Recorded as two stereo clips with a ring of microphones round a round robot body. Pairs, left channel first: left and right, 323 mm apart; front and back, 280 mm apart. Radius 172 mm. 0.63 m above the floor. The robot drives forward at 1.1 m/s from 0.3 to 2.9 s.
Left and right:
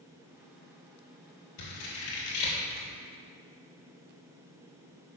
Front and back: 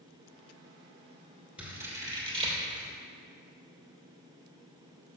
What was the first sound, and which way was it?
Scissors, 95° left.